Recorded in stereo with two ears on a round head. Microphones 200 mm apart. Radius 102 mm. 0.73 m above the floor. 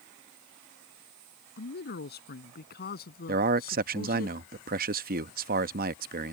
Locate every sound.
1.6 s a man speaking: 50° left (ahead or behind); by 4.3 s 45° left (ahead or behind)
3.3 s a man speaking: 40° right (ahead or behind)